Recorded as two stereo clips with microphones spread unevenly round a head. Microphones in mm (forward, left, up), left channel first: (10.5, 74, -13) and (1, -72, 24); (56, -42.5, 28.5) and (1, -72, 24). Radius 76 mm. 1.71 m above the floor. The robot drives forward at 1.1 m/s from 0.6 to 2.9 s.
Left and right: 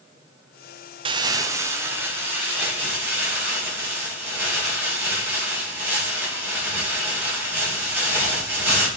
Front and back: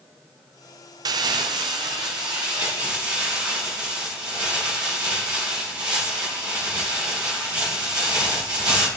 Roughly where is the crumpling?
Behind right.